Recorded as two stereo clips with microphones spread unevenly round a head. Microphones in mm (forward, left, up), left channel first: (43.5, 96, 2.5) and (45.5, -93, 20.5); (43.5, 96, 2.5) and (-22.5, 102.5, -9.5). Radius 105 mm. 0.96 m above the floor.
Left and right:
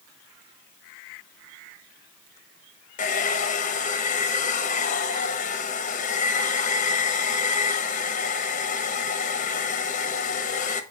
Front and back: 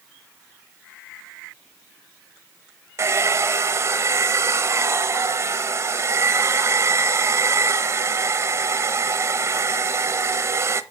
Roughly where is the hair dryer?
Behind left.